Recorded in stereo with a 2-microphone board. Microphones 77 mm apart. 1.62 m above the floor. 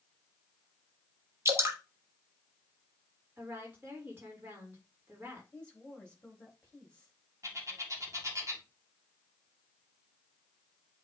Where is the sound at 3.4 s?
20° right (ahead or behind), 3 m.